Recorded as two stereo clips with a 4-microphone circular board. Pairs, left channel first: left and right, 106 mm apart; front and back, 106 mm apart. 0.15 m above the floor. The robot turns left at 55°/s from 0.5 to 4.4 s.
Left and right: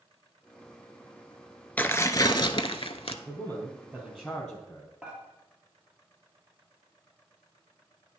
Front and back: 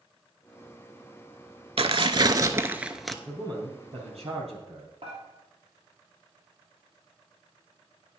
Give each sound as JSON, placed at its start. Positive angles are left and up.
{"t": 1.8, "sound": "tearing paper", "azimuth_deg": 165, "distance_m": 0.5}
{"t": 3.2, "sound": "a man speaking", "azimuth_deg": -115, "distance_m": 3.0}
{"t": 5.0, "sound": "dishes clattering", "azimuth_deg": -170, "distance_m": 2.5}